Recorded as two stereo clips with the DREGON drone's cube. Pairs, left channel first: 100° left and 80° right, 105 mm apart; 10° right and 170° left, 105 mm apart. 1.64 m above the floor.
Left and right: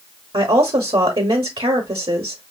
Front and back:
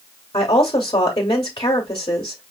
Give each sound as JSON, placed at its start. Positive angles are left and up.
{"t": 0.3, "sound": "a woman speaking", "azimuth_deg": -55, "distance_m": 0.8}